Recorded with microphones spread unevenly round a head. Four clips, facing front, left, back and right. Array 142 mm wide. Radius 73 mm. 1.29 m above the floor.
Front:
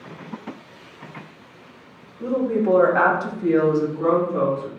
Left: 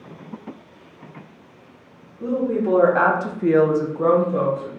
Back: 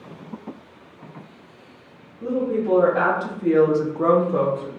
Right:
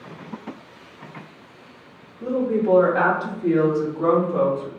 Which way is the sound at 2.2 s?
35° left.